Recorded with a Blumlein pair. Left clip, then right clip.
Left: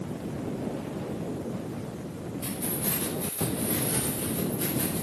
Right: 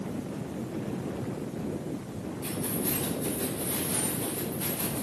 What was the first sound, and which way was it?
Keys jangling, 40° left.